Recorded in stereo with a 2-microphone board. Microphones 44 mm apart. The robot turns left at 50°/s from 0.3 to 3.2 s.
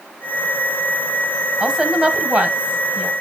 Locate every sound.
1.6 s a woman speaking: 15° right (ahead or behind), 1.1 m; by 3.1 s 25° right (ahead or behind), 1.1 m